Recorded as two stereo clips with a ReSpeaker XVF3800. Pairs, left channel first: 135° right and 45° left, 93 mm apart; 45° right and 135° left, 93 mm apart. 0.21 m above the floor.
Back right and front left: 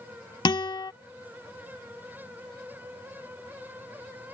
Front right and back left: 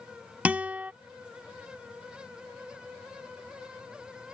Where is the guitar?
155° right.